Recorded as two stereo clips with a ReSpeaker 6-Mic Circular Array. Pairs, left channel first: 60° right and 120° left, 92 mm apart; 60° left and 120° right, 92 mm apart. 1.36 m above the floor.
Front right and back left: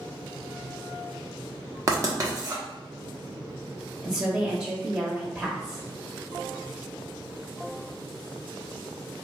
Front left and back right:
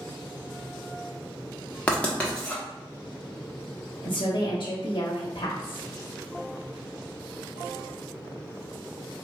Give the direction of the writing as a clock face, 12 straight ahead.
8 o'clock.